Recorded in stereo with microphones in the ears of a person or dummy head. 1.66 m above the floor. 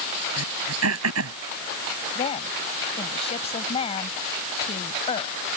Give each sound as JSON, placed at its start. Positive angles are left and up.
{"t": 0.4, "sound": "throat clearing", "side_deg": -90}
{"t": 2.1, "sound": "a woman speaking", "side_deg": 30}